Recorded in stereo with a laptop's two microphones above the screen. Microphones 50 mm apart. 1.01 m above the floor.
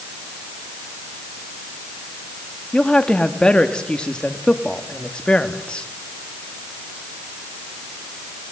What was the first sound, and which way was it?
A woman speaking, 20° left (ahead or behind).